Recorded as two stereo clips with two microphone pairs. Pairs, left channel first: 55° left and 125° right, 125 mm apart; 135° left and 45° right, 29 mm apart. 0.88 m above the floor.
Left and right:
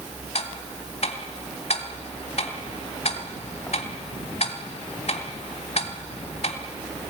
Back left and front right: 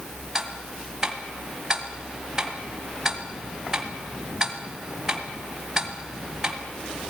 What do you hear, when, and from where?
0.3 s ticking: 25° left, 2.5 m